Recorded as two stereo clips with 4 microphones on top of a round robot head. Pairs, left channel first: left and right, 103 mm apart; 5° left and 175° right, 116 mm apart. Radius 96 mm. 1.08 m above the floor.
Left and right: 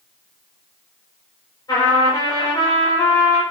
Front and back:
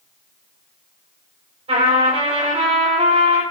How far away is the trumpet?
About 6 m.